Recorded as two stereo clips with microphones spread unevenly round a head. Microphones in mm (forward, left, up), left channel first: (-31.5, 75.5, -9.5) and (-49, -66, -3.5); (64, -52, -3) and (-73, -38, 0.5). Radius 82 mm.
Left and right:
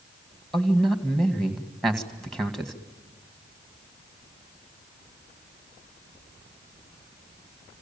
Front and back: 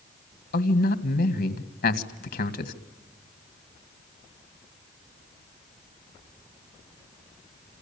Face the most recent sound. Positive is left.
turn(degrees=-5)